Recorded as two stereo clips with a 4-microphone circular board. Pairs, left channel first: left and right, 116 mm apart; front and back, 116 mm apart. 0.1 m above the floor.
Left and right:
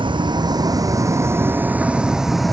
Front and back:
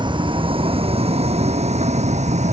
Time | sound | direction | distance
0.0 | a vehicle | 135° right | ?